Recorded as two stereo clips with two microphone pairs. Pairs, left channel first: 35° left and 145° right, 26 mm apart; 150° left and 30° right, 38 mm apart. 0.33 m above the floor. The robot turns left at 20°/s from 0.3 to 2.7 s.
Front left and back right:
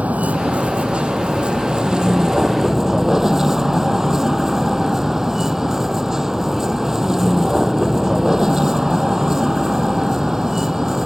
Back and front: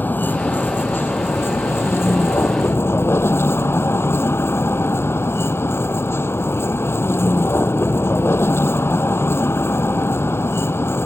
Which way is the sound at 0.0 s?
170° right.